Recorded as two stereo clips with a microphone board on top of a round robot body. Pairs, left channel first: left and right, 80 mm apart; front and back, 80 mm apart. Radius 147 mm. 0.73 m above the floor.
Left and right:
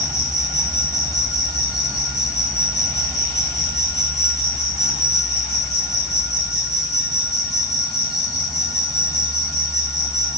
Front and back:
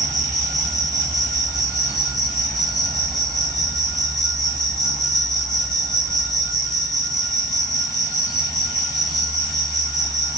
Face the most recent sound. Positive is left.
turn(degrees=40)